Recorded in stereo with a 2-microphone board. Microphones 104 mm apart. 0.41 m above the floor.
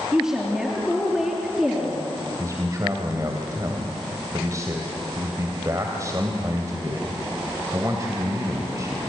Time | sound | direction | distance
0.1 | a woman speaking | 5° right (ahead or behind) | 6 m
2.4 | a man speaking | 30° right (ahead or behind) | 2.5 m